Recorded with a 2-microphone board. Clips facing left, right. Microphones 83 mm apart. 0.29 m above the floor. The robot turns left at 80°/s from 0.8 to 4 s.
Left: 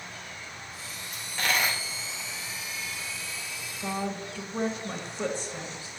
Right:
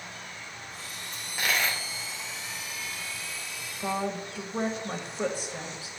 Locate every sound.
1.1 s a dropped coin: 150° right, 2.5 m; by 1.8 s 155° left, 2.5 m
3.8 s a woman speaking: 20° right (ahead or behind), 1.2 m; by 5.9 s 15° right (ahead or behind), 1.2 m